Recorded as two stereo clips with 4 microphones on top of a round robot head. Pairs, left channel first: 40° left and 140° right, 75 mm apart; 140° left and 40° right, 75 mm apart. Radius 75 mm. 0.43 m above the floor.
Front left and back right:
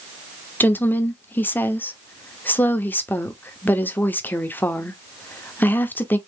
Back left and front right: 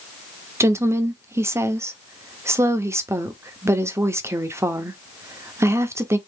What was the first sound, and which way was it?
A woman speaking, 10° right.